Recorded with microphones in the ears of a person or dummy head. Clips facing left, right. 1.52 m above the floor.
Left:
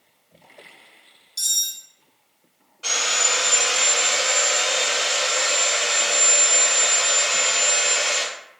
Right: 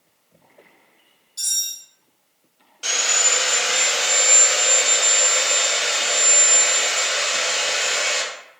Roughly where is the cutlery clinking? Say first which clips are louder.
Left 1 dB; left.